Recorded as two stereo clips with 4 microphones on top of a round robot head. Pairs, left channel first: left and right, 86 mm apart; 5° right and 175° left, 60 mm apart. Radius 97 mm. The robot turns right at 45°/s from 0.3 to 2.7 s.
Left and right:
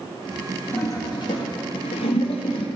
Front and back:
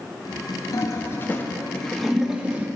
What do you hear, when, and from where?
0.7 s a toilet flushing: 25° left, 1.3 m; by 2.7 s 115° left, 1.3 m